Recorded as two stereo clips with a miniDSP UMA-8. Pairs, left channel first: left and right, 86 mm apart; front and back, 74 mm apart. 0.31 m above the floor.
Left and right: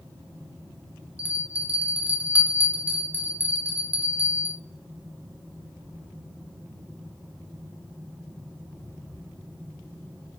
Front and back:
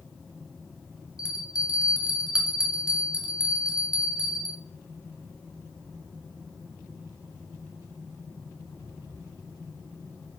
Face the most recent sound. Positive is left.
turn(degrees=-115)